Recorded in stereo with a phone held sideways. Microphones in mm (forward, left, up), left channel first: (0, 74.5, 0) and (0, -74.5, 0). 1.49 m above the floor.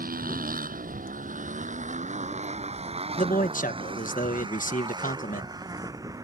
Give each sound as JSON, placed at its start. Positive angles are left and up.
{"t": 0.0, "sound": "a motorcycle", "side_deg": -85}
{"t": 3.2, "sound": "a man speaking", "side_deg": 70}